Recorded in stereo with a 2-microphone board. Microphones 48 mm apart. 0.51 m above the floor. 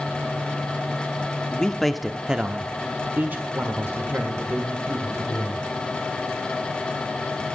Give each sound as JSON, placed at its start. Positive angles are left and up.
{"t": 1.5, "sound": "a man speaking", "side_deg": 20, "distance_m": 0.8}